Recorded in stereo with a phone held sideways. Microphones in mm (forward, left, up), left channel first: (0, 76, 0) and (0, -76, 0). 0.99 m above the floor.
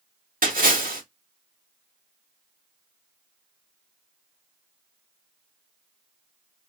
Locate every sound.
0.4 s a splash: 70° right (ahead or behind), 1.3 m